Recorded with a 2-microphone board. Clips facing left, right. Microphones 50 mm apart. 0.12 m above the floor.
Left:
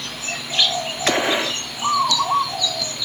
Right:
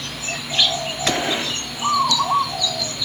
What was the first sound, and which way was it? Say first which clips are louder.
A gunshot: left 3 dB; 20° left (ahead or behind).